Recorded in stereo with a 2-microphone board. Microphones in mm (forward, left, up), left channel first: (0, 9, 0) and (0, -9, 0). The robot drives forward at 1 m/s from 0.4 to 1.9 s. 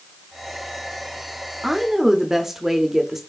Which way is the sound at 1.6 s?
20° right (ahead or behind).